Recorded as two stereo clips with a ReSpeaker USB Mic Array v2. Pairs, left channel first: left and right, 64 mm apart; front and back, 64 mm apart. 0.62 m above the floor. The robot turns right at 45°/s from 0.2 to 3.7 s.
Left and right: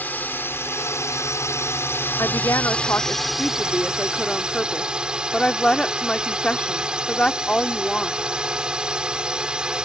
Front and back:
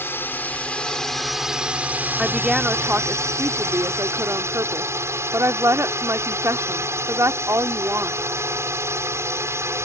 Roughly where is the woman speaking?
Left.